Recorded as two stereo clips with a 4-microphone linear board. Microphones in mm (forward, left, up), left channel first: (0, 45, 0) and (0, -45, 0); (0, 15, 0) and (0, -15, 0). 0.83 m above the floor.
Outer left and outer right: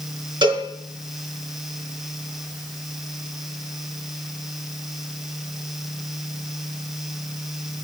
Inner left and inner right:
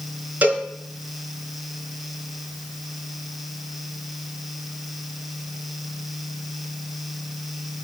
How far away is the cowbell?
About 4 m.